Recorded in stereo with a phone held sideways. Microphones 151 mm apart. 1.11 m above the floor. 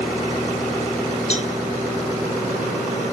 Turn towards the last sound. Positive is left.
turn(degrees=45)  # may be behind; listen again after turning